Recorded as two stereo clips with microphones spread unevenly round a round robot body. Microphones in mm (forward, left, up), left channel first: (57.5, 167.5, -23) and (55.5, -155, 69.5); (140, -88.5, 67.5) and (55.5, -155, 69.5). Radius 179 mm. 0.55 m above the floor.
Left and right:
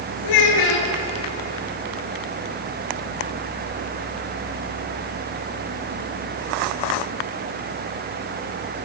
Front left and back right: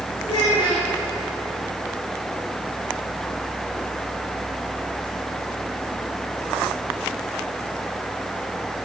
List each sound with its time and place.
0.2 s a child speaking: 105° left, 6 m